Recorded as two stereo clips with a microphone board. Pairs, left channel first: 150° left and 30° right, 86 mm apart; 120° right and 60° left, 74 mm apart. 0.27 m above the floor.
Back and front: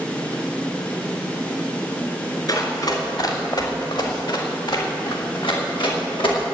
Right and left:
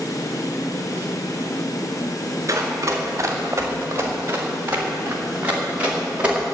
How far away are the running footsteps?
About 4 m.